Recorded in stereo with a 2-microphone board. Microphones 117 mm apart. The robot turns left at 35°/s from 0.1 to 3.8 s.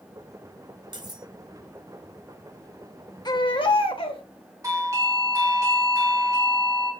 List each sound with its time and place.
0.9 s cutlery clinking: 40° right (ahead or behind), 0.7 m; by 1.3 s 30° right (ahead or behind), 0.7 m
3.2 s a baby crying: 35° left (ahead or behind), 0.9 m; by 4.2 s 45° left (ahead or behind), 0.9 m
4.6 s a doorbell: 25° right (ahead or behind), 1.5 m